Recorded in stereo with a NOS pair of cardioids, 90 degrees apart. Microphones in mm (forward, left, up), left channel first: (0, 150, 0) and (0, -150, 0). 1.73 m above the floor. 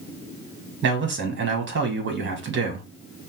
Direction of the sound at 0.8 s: 40° right.